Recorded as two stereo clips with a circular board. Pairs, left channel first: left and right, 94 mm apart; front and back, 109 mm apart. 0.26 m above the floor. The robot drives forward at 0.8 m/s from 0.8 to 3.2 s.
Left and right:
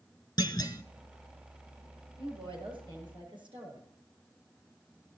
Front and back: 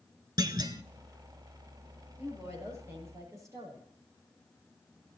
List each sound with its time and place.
0.4 s a clunk: 130° left, 0.8 m; by 0.8 s 135° left, 0.8 m
2.2 s a woman speaking: 115° right, 6 m; by 3.9 s 120° right, 6.5 m